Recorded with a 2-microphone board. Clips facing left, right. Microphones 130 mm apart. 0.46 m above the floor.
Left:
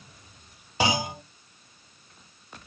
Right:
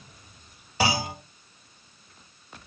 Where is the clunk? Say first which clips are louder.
Even; 20° left (ahead or behind), 1.8 m.